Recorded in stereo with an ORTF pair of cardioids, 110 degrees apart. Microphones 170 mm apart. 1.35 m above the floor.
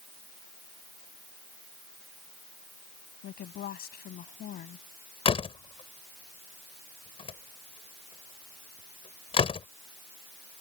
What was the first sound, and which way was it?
A woman speaking, 60° left.